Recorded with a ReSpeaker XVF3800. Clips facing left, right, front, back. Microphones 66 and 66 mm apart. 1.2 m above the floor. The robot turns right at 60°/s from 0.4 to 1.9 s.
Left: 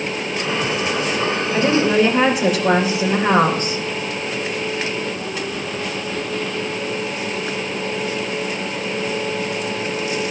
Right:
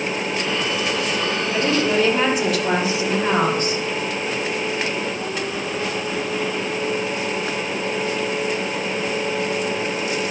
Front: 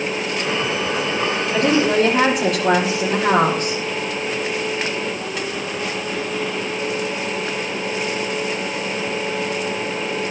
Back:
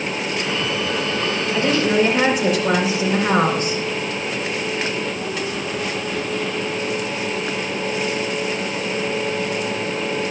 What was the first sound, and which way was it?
A woman speaking, 5° right.